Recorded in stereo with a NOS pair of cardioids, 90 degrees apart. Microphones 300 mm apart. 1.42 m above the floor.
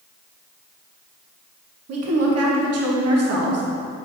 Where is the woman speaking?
55° right, 1.4 m.